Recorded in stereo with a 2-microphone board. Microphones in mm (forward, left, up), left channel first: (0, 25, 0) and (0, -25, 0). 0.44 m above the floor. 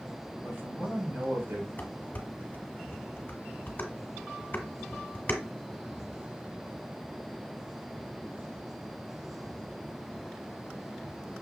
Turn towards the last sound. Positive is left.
turn(degrees=40)  # may be behind; listen again after turning